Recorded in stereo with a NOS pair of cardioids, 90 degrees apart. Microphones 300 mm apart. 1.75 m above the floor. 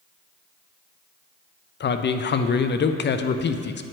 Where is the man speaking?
35° left, 0.6 m.